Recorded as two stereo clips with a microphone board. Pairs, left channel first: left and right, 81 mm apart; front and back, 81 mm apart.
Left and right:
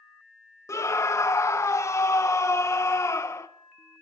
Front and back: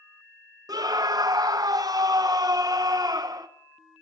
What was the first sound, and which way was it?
A scream, 140° left.